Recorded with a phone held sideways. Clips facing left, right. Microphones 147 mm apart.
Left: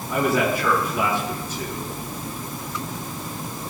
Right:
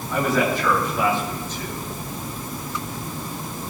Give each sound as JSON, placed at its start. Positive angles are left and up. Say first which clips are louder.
{"t": 0.1, "sound": "a man speaking", "louder": "even", "side_deg": 10, "distance_m": 10.0}